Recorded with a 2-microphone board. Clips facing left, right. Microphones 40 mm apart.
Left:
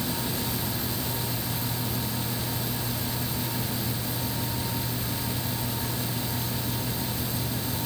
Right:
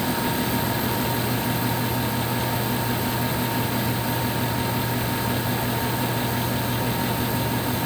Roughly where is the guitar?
I don't hear a guitar.